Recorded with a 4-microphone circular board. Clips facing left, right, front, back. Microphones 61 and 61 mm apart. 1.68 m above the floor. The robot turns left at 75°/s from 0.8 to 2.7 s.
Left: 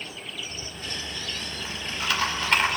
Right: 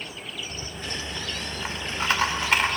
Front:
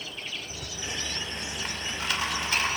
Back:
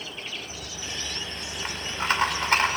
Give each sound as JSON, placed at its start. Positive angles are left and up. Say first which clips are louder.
{"t": 0.5, "sound": "a rattle", "louder": "right 2 dB, even", "azimuth_deg": -45, "distance_m": 2.0}